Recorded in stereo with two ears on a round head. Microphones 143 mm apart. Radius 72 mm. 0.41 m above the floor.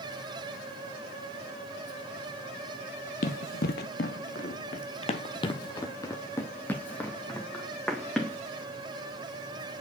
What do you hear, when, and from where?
3.2 s running footsteps: 55° left (ahead or behind), 1.0 m; by 8.4 s centre (ahead or behind), 2 m